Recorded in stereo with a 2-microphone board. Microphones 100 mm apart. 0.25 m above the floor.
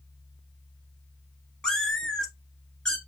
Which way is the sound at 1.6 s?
5° left (ahead or behind).